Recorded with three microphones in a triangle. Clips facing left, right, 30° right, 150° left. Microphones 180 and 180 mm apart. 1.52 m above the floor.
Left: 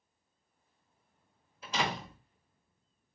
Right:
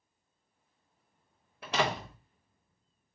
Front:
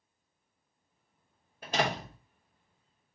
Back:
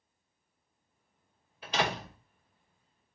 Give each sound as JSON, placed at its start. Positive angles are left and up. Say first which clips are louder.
{"t": 1.6, "sound": "a door slam", "louder": "right 4 dB, front 1 dB", "azimuth_deg": -70, "distance_m": 2.5}